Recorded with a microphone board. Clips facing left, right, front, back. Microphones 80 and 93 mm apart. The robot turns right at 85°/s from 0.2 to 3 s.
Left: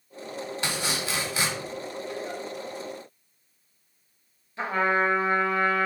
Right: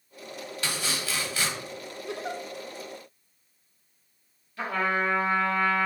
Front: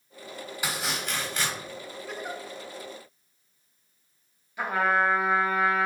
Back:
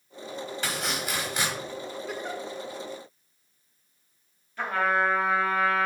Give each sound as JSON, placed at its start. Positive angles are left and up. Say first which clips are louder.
{"t": 0.6, "sound": "chopping", "louder": "left 1 dB, front 1 dB", "azimuth_deg": 65, "distance_m": 1.0}
{"t": 2.1, "sound": "a giggle", "louder": "right 4 dB, even", "azimuth_deg": -100, "distance_m": 0.5}
{"t": 4.6, "sound": "a trumpet", "louder": "left 3 dB, front 1 dB", "azimuth_deg": 65, "distance_m": 1.0}